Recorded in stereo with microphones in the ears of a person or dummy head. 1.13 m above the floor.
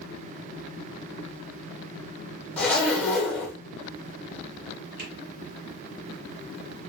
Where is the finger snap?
50° right (ahead or behind), 0.9 m.